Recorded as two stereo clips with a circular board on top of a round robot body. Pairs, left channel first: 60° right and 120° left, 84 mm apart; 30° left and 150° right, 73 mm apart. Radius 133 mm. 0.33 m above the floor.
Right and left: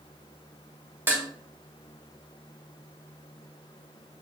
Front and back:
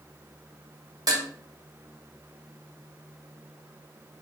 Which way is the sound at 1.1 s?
175° right.